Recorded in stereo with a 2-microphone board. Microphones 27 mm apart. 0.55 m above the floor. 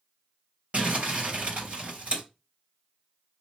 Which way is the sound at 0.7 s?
55° right (ahead or behind).